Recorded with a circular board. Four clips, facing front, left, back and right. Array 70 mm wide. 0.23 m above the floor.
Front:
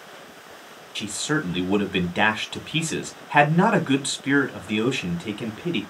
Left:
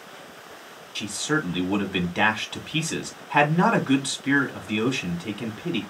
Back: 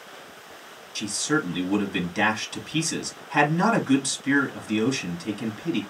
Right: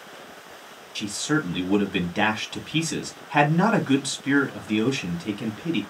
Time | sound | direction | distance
0.9 | a man speaking | 5° left | 1.2 m